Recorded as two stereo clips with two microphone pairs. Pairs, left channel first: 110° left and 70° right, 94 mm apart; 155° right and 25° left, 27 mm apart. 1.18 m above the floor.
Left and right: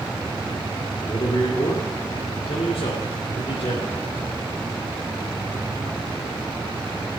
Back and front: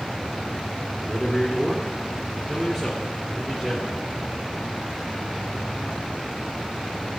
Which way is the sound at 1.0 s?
100° left.